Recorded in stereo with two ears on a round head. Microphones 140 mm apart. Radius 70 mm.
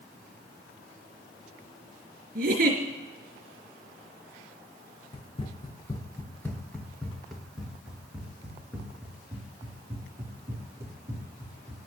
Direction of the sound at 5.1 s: 40° left (ahead or behind).